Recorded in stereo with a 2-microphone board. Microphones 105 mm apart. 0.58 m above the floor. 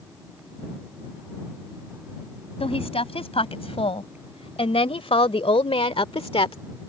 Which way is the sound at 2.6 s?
65° left (ahead or behind).